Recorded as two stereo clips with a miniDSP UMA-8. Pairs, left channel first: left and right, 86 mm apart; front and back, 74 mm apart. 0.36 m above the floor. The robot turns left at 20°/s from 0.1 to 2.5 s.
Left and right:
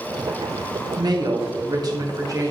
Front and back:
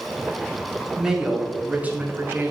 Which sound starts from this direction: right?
A woman speaking, at 1.0 s.